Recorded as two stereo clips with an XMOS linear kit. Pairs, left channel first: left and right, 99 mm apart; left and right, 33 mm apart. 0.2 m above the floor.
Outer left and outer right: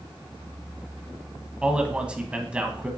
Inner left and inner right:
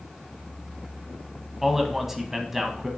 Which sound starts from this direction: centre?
A man speaking, at 1.6 s.